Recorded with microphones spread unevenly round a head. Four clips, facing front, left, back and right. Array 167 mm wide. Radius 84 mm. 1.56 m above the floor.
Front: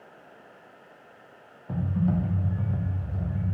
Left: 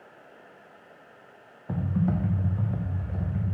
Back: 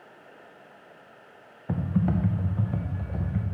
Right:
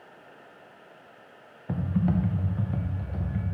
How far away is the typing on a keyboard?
About 0.6 m.